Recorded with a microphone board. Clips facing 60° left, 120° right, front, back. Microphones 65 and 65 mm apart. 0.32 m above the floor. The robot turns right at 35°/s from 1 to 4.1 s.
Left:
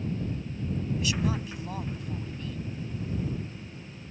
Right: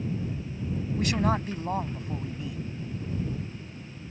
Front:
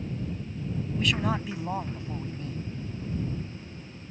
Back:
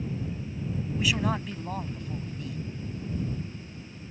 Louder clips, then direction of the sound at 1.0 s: Right 6 dB, even; 100° right.